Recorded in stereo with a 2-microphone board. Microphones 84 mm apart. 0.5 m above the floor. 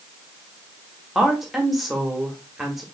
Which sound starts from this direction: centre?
A woman speaking, at 1.1 s.